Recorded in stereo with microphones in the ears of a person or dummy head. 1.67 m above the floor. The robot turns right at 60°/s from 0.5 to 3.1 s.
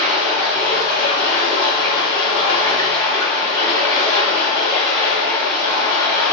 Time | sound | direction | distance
0.0 | running water | 5° right | 1.7 m